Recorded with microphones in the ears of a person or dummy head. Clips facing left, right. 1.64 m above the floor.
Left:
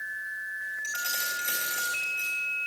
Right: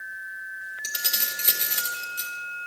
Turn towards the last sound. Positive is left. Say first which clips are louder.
# left 2 dB
turn(degrees=-60)  # may be behind; listen again after turning